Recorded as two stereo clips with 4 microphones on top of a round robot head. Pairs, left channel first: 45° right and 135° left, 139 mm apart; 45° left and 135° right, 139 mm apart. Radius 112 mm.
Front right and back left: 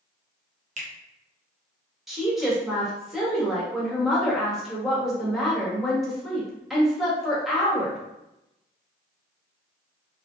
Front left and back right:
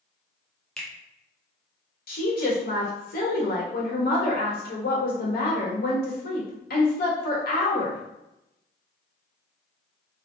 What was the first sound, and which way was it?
A finger snap, 130° left.